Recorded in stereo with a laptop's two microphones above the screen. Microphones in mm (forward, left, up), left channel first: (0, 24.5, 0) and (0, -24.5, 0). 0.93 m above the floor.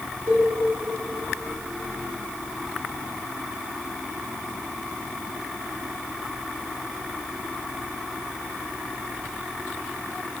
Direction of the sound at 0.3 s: 65° right (ahead or behind).